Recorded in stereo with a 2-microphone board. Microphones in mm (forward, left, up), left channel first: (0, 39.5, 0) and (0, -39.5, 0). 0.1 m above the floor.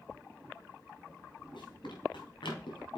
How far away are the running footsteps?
About 4 m.